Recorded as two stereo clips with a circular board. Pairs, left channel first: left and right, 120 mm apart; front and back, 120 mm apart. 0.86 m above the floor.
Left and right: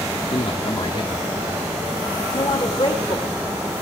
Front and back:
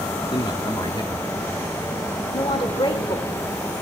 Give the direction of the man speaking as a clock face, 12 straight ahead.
10 o'clock.